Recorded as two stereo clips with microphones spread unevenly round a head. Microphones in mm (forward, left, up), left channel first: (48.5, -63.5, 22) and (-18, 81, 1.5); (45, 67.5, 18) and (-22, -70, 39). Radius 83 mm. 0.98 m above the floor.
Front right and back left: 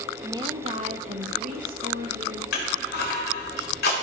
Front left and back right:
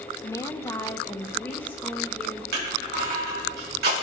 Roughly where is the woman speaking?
Left.